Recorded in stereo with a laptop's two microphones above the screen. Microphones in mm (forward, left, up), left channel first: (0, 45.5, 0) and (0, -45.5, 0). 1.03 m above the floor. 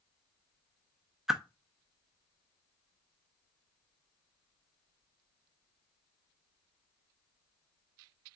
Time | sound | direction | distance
1.3 | a whoosh | 5° right (ahead or behind) | 0.5 m